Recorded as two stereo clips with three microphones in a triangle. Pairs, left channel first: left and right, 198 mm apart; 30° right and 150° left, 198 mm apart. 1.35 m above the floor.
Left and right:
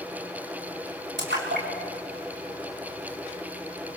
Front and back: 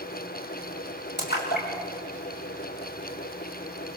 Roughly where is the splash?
Ahead right.